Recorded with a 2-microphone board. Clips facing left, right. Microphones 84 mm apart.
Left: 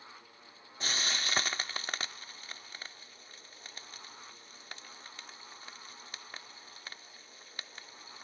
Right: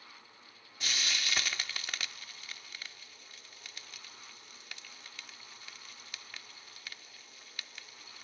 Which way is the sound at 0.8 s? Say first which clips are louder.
Left 2 dB; 30° left (ahead or behind).